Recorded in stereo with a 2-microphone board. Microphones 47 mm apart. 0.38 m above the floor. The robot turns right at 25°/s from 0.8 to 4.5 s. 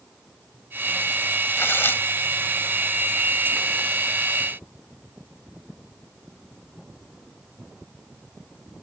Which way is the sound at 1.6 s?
55° left (ahead or behind).